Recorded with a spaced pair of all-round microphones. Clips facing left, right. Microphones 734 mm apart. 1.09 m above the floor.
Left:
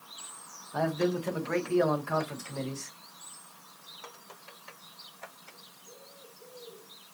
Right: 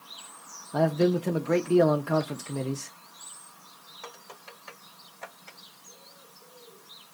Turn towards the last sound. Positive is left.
turn(degrees=-60)  # may be behind; listen again after turning